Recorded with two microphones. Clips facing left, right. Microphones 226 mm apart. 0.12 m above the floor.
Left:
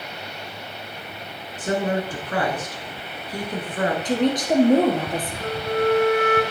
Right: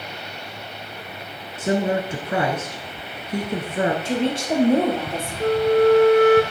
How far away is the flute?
About 1.0 m.